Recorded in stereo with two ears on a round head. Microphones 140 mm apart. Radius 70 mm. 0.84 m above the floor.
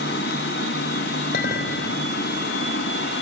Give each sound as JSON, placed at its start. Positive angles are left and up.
{"t": 0.0, "sound": "running water", "side_deg": 70, "distance_m": 3.0}
{"t": 1.3, "sound": "a clink", "side_deg": 60, "distance_m": 3.0}